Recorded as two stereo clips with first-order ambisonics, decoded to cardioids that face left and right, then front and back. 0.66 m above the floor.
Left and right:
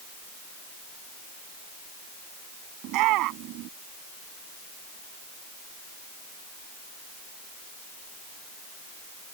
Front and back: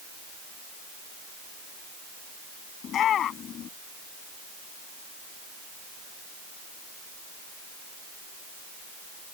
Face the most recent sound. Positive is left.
turn(degrees=-55)